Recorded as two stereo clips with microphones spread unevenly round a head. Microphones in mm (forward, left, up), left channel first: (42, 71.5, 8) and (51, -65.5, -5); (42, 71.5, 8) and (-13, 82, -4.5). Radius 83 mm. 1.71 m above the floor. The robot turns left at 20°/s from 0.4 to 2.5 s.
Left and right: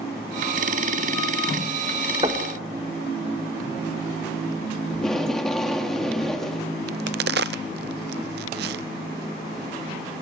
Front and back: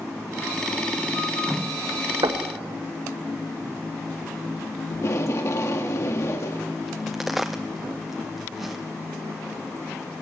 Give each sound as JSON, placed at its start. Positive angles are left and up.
{"t": 2.2, "sound": "knocking", "azimuth_deg": -150, "distance_m": 1.8}
{"t": 4.9, "sound": "tape being pulled", "azimuth_deg": 10, "distance_m": 2.5}
{"t": 6.9, "sound": "a crack", "azimuth_deg": -100, "distance_m": 0.5}